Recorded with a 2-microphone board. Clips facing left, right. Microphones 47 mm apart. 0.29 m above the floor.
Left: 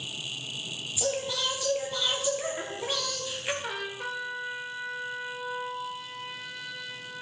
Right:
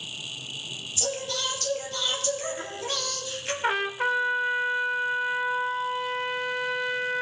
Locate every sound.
1.0 s singing: 15° left (ahead or behind), 2.5 m
3.6 s a trumpet: 50° right (ahead or behind), 0.8 m